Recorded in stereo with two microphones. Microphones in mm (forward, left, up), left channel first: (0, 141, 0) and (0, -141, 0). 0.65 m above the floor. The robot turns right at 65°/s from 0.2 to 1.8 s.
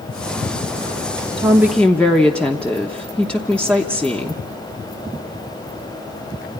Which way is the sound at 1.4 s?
20° right (ahead or behind).